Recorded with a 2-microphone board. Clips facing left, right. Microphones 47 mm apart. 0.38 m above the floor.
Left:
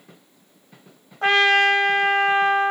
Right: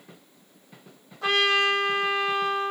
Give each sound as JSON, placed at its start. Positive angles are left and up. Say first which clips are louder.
{"t": 1.2, "sound": "a trumpet", "louder": "left 6 dB", "side_deg": 40, "distance_m": 1.2}